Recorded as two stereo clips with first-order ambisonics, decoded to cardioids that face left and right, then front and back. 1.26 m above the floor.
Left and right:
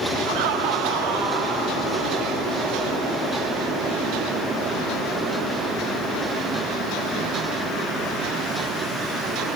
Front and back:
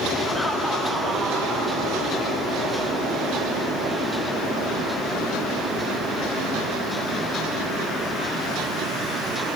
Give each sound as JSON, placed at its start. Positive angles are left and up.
{"t": 0.3, "sound": "laughter", "azimuth_deg": -80, "distance_m": 1.1}